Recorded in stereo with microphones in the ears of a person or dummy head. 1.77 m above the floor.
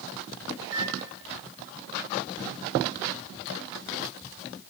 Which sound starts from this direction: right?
A microwave, at 0.6 s.